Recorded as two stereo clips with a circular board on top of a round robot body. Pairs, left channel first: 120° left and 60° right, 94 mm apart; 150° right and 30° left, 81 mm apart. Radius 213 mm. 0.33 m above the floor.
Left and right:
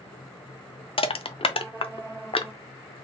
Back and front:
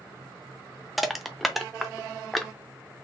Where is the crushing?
120° left, 0.8 m.